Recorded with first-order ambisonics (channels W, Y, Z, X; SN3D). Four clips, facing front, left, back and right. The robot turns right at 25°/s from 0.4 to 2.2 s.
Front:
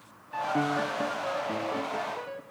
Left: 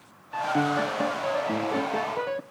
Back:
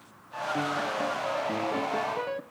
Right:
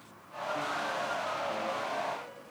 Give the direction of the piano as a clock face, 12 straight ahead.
10 o'clock.